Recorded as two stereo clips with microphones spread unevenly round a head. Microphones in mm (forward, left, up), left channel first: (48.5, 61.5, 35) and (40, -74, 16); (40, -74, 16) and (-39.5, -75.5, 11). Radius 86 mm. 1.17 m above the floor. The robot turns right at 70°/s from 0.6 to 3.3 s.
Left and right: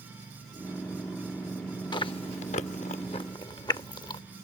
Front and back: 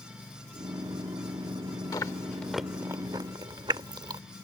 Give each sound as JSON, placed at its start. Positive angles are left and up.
{"t": 1.9, "sound": "chewing", "azimuth_deg": 45}